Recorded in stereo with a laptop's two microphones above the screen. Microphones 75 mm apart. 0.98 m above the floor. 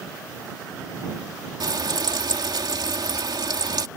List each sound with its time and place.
1.6 s frying: 70° right (ahead or behind)